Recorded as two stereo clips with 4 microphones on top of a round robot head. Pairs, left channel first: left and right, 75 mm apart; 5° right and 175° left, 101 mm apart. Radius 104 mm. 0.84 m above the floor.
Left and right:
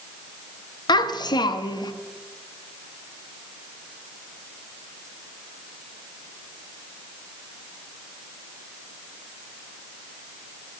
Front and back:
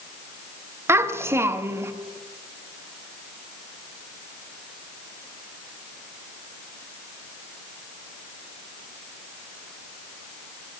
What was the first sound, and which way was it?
A child speaking, 110° left.